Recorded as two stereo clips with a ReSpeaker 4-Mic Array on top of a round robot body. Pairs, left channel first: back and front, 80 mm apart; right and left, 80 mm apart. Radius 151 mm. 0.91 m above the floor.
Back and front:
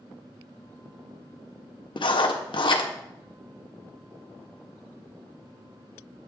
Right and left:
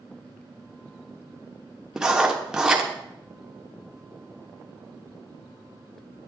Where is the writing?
170° left, 1.1 m.